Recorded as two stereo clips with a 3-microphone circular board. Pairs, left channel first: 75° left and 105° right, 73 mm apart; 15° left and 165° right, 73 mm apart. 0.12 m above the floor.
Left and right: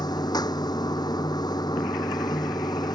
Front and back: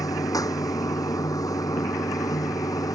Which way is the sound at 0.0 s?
55° left.